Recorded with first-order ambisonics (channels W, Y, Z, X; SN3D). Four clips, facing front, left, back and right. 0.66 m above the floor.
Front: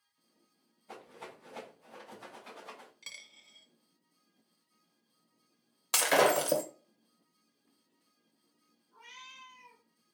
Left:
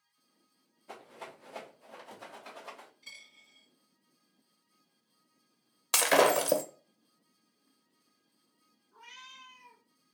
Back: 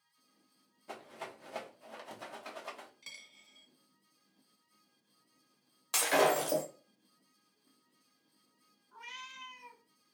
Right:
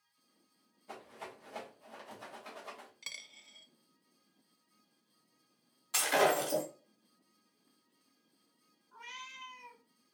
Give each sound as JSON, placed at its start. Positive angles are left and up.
{"t": 0.9, "sound": "a rattle", "azimuth_deg": 175, "distance_m": 1.0}
{"t": 3.0, "sound": "a dropped coin", "azimuth_deg": -70, "distance_m": 0.5}
{"t": 5.9, "sound": "breaking glass", "azimuth_deg": 65, "distance_m": 0.7}
{"t": 8.9, "sound": "a cat meowing", "azimuth_deg": -140, "distance_m": 1.2}